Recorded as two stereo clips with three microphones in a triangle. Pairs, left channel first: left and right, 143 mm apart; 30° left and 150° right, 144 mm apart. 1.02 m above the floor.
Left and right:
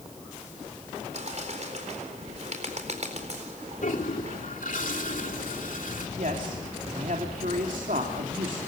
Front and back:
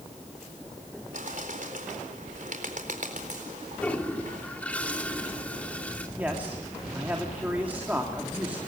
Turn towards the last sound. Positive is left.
turn(degrees=-70)